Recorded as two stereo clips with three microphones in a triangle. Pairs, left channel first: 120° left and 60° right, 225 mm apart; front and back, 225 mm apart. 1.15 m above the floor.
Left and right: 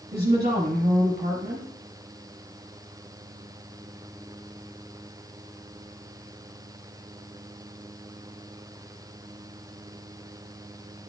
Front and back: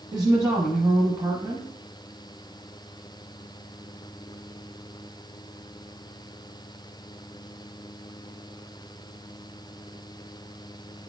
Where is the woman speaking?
105° right, 1.1 m.